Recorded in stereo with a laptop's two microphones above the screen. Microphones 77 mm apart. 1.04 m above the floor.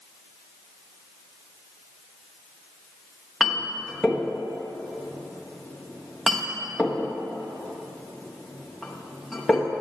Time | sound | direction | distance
3.4 | a clink | 5° right (ahead or behind) | 0.8 m